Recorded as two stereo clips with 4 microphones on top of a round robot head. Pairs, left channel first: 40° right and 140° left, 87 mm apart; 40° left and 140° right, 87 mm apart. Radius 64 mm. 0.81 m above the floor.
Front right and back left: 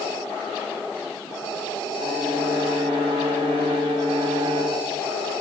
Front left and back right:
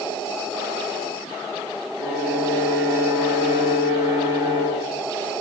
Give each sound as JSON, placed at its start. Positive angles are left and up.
{"t": 2.0, "sound": "a violin", "azimuth_deg": 170, "distance_m": 4.0}